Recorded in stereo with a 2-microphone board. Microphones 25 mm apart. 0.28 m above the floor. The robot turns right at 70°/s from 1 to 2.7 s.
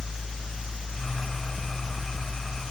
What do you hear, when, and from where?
Only background noise.